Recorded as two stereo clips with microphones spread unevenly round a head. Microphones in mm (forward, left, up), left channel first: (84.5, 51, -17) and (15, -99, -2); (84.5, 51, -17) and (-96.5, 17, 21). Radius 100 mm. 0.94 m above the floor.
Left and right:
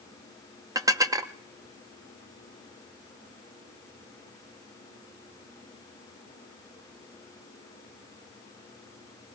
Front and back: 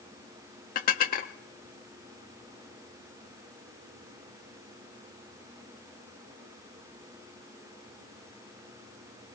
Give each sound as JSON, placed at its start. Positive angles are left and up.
{"t": 0.8, "sound": "dishes clattering", "azimuth_deg": -45, "distance_m": 0.7}